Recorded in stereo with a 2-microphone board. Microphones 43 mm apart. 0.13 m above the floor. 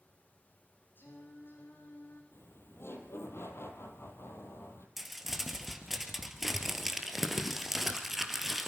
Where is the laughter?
70° left (ahead or behind), 3.5 m.